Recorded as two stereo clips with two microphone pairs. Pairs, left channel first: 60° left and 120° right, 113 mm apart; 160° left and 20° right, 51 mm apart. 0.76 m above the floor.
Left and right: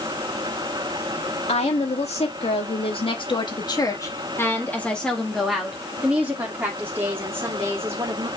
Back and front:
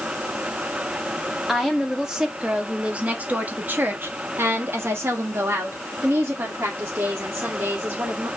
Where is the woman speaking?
65° left, 1.8 m; by 8.3 s 55° right, 3 m.